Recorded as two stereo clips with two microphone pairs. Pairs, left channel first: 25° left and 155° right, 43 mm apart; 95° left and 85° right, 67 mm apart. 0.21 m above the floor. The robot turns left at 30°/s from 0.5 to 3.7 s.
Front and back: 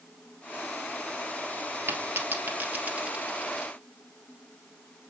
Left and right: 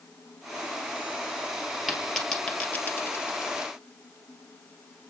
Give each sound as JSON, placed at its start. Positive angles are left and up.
{"t": 1.9, "sound": "a dropped coin", "azimuth_deg": -170, "distance_m": 1.4}